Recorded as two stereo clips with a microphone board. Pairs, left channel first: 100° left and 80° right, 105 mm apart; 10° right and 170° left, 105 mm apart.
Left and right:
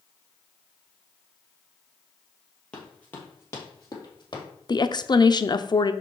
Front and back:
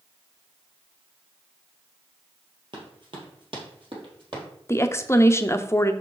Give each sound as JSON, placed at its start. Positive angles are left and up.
{"t": 2.7, "sound": "running footsteps", "azimuth_deg": 180, "distance_m": 2.5}
{"t": 4.7, "sound": "a woman speaking", "azimuth_deg": 50, "distance_m": 0.6}